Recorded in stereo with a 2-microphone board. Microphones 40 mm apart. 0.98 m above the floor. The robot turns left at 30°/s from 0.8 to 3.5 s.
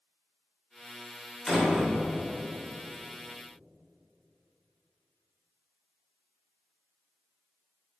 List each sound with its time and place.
1.5 s a door slam: 10° left (ahead or behind), 2.5 m; by 1.9 s 5° right (ahead or behind), 2.5 m